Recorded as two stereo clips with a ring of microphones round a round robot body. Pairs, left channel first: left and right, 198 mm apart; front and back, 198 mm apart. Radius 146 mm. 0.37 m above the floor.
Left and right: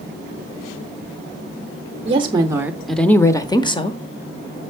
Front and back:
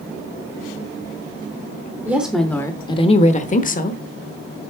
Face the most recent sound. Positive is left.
turn(degrees=35)